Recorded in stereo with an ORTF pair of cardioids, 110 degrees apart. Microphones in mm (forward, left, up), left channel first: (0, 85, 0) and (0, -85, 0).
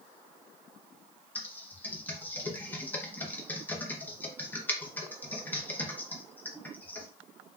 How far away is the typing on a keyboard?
About 0.7 m.